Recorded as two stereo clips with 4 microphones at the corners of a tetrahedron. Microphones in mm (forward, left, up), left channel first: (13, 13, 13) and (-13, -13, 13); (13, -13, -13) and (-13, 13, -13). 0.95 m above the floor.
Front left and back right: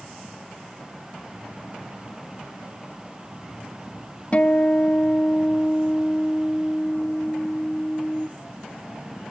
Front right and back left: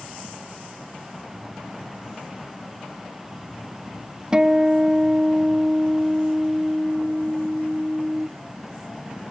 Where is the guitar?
80° left, 0.5 m.